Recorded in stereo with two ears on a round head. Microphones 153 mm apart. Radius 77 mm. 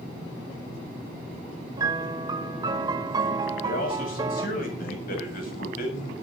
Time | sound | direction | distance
1.8 | a piano | 25° right (ahead or behind) | 1.2 m
3.6 | a man speaking | 55° left (ahead or behind) | 7.5 m